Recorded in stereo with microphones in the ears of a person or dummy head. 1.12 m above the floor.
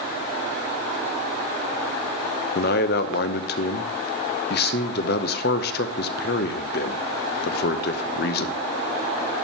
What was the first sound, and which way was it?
A man speaking, 60° left (ahead or behind).